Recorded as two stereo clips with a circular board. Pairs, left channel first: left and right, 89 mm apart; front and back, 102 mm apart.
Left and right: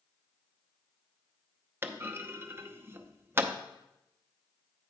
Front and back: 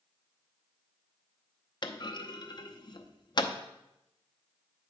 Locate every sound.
1.8 s a clunk: 30° right, 0.6 m